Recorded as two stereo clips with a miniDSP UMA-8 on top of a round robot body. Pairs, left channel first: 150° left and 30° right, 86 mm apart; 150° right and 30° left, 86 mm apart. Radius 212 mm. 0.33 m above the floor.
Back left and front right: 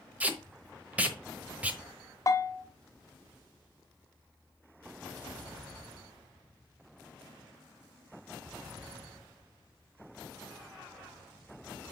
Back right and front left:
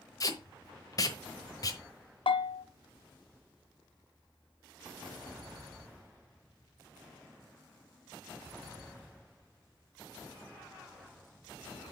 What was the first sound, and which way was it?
Tape being pulled, 105° right.